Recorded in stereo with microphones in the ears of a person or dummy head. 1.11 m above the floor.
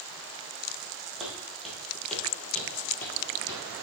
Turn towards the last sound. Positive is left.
turn(degrees=15)  # may be behind; listen again after turning